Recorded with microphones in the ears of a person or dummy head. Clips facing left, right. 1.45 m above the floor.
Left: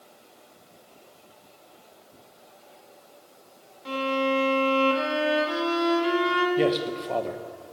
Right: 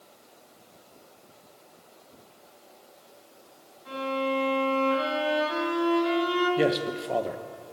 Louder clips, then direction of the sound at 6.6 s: Left 1 dB; 5° right (ahead or behind).